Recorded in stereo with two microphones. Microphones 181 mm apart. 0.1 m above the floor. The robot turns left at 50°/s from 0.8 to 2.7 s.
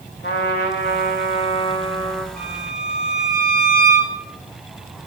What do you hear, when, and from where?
0.2 s a trumpet: 75° left, 1.5 m; by 2.3 s straight ahead, 1.5 m
2.4 s a violin: 70° left (ahead or behind), 4.5 m; by 4.2 s 75° left (ahead or behind), 4.5 m